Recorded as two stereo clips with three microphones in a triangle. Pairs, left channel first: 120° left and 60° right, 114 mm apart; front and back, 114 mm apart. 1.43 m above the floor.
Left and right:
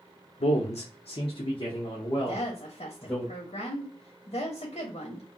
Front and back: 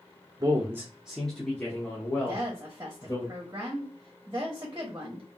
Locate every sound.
0.4 s a man speaking: 130° left, 0.5 m; by 3.3 s 55° left, 1.5 m
2.3 s a woman speaking: 120° left, 0.9 m